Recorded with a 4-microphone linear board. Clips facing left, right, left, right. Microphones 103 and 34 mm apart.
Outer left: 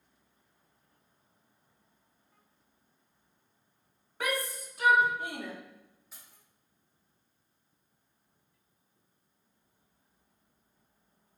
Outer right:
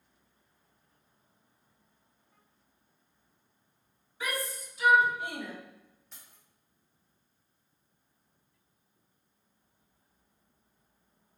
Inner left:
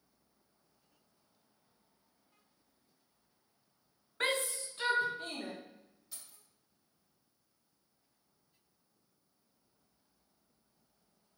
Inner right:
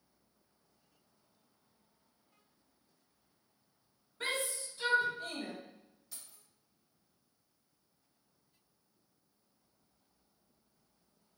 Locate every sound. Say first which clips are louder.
4.2 s a shout: outer left 3 dB, inner left 3 dB; 60° left (ahead or behind), 0.6 m; by 5.5 s 40° left (ahead or behind), 1.7 m
6.1 s keys jangling: even, even; 5° left (ahead or behind), 1.8 m